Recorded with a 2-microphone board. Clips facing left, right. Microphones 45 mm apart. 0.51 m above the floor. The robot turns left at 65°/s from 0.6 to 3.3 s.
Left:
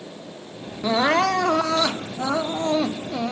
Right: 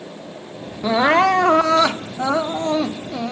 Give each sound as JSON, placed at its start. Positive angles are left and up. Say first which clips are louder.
{"t": 0.8, "sound": "crying", "louder": "right 4 dB", "azimuth_deg": -25, "distance_m": 0.6}